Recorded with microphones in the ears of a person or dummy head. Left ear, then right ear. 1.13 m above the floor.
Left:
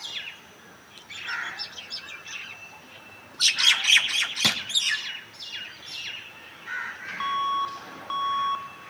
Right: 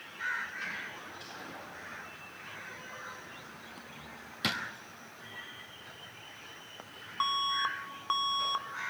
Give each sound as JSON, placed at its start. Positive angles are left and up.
{"t": 4.4, "sound": "a drawer", "side_deg": 20, "distance_m": 1.0}
{"t": 7.2, "sound": "an alarm", "side_deg": -20, "distance_m": 0.7}